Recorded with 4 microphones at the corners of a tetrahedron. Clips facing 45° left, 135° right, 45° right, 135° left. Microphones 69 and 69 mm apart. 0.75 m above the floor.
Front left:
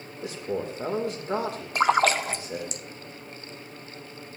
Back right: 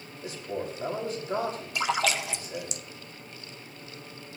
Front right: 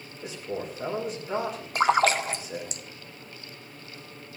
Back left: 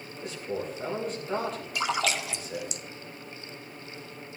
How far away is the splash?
About 0.6 m.